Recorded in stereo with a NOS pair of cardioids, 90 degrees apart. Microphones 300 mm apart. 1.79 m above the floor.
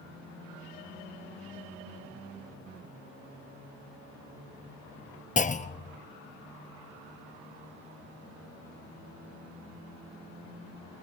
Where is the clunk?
25° left, 1.5 m.